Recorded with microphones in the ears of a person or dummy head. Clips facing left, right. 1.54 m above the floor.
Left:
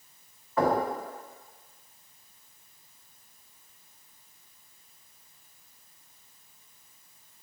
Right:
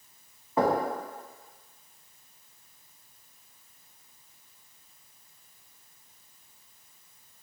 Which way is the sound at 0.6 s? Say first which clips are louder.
Even; 25° right (ahead or behind).